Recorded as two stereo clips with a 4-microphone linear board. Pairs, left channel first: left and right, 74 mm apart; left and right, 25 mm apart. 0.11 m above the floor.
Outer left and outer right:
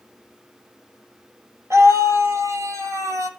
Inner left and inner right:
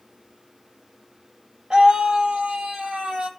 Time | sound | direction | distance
1.7 | a scream | 35° right (ahead or behind) | 2.5 m